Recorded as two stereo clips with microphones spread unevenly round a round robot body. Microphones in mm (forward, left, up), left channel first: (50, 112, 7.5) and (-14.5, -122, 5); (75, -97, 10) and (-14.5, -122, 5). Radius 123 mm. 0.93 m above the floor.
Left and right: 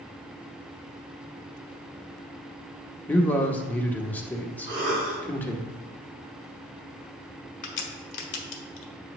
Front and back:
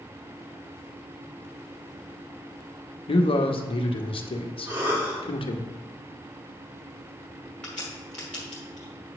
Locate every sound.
3.1 s a man speaking: 10° right, 1.0 m
4.7 s a cough: 120° right, 3.5 m
7.6 s a crack: 100° left, 1.2 m